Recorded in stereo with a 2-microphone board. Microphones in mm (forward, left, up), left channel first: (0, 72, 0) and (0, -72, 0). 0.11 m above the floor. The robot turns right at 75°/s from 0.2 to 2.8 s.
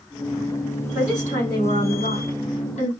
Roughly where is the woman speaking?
Ahead.